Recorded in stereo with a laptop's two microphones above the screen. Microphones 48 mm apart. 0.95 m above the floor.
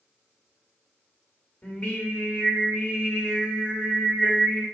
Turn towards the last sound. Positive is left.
turn(degrees=30)  # may be behind; listen again after turning